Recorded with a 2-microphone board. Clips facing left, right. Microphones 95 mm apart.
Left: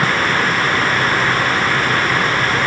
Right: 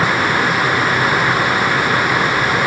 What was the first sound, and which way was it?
Only background noise.